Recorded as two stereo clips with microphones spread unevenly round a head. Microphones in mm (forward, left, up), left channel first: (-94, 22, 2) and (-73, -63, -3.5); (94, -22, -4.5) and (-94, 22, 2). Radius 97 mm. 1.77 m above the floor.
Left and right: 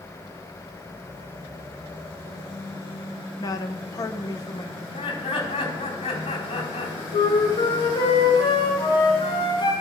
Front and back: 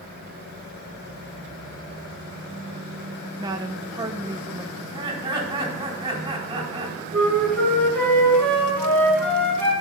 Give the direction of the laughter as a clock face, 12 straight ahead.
9 o'clock.